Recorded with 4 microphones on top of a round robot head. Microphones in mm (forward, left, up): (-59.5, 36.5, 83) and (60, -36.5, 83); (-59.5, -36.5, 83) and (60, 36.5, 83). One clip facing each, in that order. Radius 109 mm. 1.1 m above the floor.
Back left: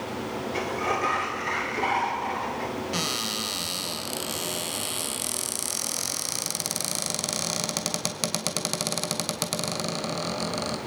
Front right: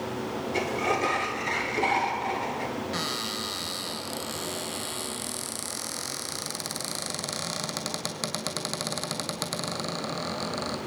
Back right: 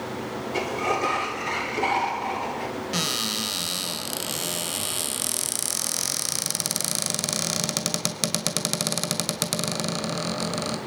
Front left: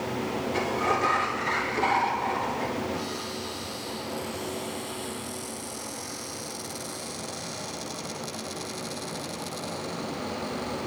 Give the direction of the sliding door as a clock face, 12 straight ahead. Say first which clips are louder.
Front right 2 dB, back right 2 dB; 3 o'clock.